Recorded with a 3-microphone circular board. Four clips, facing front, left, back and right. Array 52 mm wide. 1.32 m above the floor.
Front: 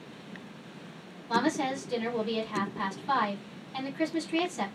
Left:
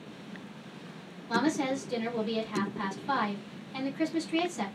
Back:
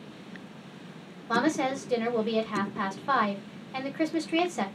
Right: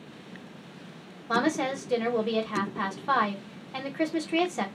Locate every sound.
1.3 s a woman speaking: 130° right, 1.0 m